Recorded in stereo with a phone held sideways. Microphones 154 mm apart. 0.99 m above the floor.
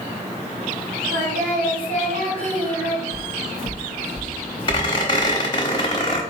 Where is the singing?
65° right (ahead or behind), 2.5 m.